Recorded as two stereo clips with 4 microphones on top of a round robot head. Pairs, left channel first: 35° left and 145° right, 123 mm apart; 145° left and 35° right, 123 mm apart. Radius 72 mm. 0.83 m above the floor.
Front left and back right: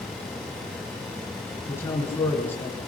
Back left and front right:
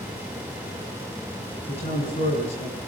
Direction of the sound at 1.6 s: 105° left.